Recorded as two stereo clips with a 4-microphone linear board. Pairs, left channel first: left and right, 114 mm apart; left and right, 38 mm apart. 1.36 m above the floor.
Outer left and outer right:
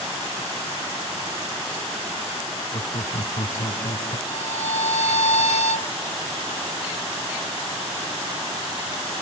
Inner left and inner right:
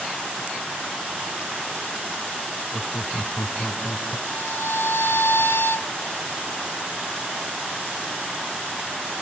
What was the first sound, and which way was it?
Laughter, 65° left (ahead or behind).